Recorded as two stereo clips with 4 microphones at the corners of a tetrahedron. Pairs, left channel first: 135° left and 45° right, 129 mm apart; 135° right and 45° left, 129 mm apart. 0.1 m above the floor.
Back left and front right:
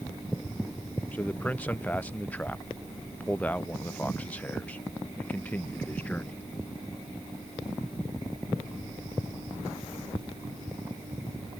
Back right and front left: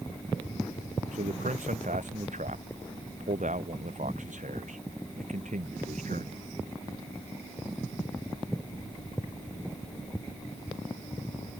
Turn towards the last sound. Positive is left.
turn(degrees=55)